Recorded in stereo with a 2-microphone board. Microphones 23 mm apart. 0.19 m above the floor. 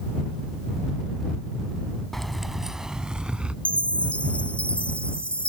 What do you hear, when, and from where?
2.1 s keys jangling: 10° left (ahead or behind); by 3.5 s 55° right (ahead or behind)
3.6 s a chime: 60° left (ahead or behind)